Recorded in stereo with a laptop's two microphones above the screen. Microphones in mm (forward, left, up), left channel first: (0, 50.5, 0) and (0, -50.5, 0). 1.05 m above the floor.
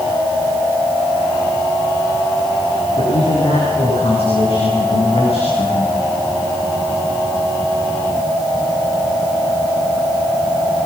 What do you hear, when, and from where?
3.0 s a man speaking: 80° left, 10 m